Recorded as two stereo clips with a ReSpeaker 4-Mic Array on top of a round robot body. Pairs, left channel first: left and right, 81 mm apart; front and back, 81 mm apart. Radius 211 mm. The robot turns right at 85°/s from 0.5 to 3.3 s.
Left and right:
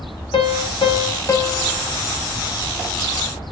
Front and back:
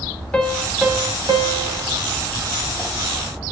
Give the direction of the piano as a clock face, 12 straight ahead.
10 o'clock.